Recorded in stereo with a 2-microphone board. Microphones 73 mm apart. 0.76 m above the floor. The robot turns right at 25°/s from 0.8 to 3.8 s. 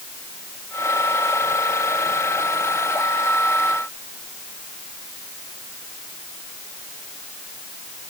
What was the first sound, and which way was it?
Only background noise.